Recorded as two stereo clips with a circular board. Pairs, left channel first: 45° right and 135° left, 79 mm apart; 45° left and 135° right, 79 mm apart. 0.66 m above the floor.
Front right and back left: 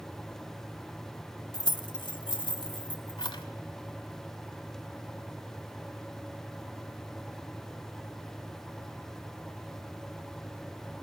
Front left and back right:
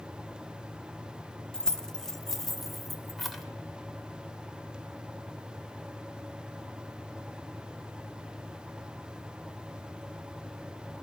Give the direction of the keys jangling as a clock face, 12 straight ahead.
1 o'clock.